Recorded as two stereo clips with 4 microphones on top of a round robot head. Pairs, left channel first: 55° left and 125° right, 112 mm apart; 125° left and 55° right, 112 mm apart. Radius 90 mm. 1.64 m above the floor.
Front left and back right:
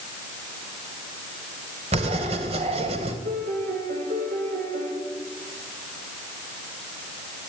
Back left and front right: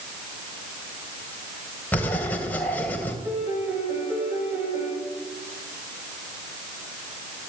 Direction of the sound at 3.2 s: 125° right.